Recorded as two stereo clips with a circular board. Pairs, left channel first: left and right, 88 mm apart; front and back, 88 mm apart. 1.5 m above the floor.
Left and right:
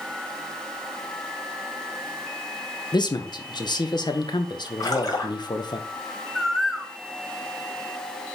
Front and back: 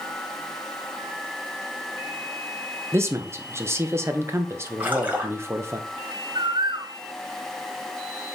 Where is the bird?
Straight behind, 0.6 m.